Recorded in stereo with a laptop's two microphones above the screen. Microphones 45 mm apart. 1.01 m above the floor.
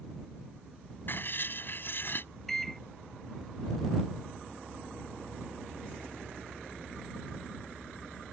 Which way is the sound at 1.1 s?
50° left (ahead or behind).